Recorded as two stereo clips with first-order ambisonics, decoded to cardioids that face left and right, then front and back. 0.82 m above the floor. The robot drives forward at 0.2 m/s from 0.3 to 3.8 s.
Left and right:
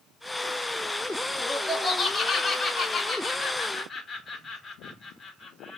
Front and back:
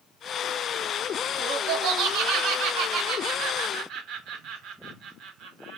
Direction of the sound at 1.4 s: 170° left.